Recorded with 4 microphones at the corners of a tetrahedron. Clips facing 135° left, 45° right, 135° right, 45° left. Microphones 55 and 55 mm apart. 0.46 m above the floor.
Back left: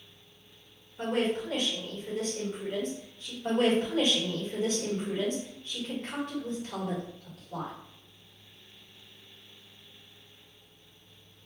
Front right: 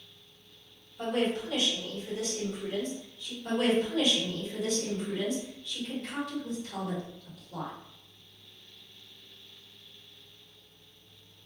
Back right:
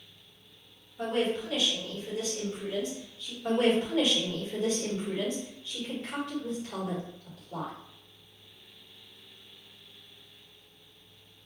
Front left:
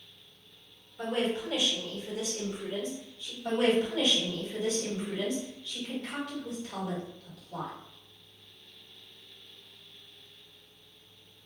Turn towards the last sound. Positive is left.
turn(degrees=170)